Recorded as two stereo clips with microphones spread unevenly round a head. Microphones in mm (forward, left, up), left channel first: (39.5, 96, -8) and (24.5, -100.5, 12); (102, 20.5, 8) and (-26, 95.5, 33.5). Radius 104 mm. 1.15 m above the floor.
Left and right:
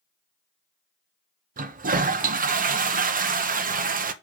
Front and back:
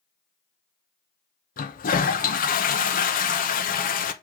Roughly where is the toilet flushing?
Ahead right.